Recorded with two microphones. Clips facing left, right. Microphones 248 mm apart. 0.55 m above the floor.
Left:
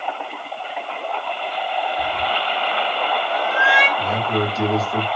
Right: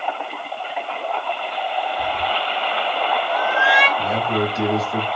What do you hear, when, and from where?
2.0 s a cat meowing: 40° left (ahead or behind), 1.4 m
4.0 s a man speaking: 15° right (ahead or behind), 1.2 m